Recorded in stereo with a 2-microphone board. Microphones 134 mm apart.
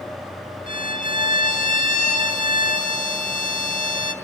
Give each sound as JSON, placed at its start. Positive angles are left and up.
{"t": 0.7, "sound": "a violin", "side_deg": 70, "distance_m": 2.0}